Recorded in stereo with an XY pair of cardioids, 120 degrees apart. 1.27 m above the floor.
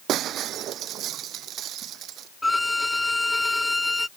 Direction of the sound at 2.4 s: 15° left.